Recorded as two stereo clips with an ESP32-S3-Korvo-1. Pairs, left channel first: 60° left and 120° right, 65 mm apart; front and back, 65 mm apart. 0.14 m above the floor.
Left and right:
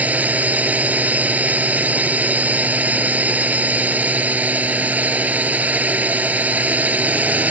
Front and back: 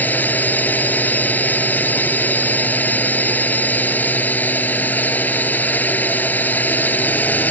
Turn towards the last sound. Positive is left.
turn(degrees=-55)